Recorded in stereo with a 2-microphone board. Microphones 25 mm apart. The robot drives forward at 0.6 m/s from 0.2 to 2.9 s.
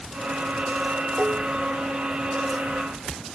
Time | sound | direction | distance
1.2 | dishes clattering | 70° right (ahead or behind) | ?